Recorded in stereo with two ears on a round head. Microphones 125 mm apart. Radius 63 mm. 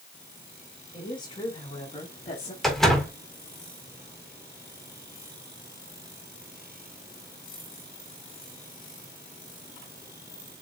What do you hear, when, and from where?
0.9 s a woman speaking: 35° left (ahead or behind), 5.5 m; by 2.5 s 50° left (ahead or behind), 3 m
2.6 s a door slam: centre (ahead or behind), 4 m